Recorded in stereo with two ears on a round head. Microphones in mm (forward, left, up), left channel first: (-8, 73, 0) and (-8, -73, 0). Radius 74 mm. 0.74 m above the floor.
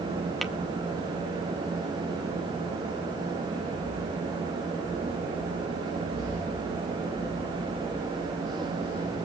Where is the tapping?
Centre (ahead or behind), 0.7 m.